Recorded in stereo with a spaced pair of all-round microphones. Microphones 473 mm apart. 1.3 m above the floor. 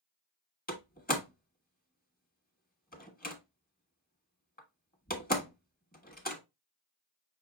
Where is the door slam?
20° left (ahead or behind), 1.2 m.